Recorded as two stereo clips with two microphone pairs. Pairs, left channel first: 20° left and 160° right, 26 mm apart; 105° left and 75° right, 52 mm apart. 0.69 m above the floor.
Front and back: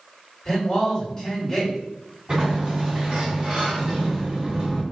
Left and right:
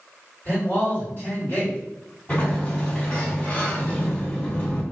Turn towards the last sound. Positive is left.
turn(degrees=155)